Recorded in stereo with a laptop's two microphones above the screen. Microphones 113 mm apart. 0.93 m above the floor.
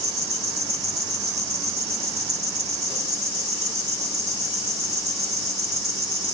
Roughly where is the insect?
Right.